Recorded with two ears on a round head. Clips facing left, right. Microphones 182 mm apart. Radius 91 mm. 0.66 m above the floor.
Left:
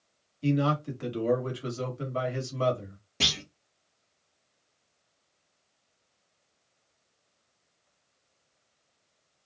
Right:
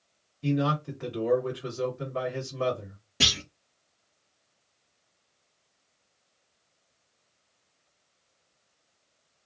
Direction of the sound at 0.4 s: 50° left (ahead or behind).